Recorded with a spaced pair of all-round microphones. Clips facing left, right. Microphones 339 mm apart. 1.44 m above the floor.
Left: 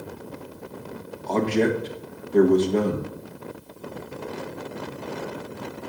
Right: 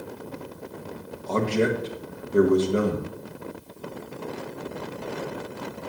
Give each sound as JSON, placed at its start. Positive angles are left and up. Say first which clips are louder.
{"t": 1.3, "sound": "a man speaking", "louder": "left 2 dB", "side_deg": -10, "distance_m": 1.5}